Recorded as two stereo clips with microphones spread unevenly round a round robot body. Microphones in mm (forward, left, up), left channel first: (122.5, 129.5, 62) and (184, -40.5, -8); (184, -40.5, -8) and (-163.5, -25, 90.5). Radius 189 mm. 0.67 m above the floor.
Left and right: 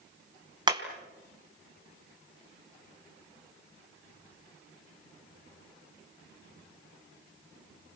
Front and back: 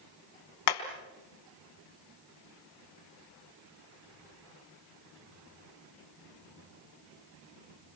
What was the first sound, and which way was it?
Hammering, 5° right.